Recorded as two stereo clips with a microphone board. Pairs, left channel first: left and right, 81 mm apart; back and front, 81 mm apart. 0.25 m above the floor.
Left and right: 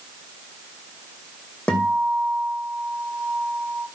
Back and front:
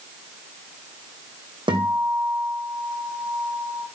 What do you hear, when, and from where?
1.7 s a guitar: 15° left, 2 m